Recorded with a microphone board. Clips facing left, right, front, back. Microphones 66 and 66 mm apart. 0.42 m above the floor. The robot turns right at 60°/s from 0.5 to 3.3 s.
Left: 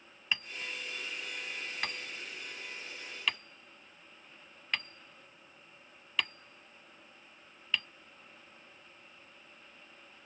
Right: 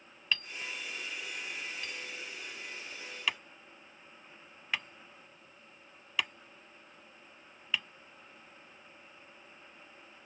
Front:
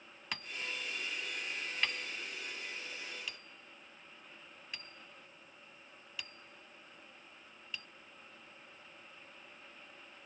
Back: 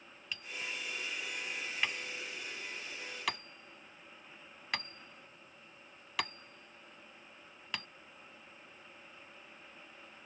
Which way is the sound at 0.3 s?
20° left.